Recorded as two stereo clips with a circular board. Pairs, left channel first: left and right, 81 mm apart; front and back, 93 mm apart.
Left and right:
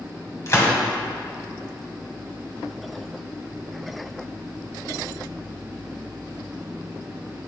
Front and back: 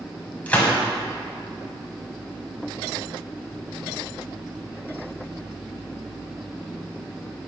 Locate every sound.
0.5 s a gunshot: 65° left, 1.8 m